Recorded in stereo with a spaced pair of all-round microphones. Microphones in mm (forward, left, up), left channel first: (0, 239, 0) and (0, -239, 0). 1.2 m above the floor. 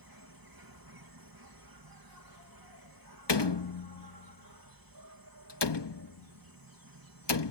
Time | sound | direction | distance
0.0 | an insect | 45° right (ahead or behind) | ?
3.3 | a door slam | 60° left (ahead or behind) | ?